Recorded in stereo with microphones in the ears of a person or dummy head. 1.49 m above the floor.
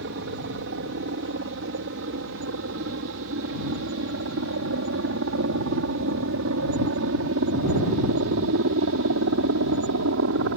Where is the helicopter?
55° right (ahead or behind); by 10.6 s 70° right (ahead or behind).